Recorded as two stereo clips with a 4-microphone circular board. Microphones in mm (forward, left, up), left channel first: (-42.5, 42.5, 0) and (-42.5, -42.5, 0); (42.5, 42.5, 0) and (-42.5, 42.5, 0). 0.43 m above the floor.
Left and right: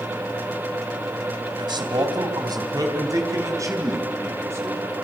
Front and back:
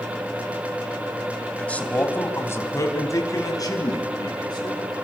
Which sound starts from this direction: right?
A man speaking, at 1.6 s.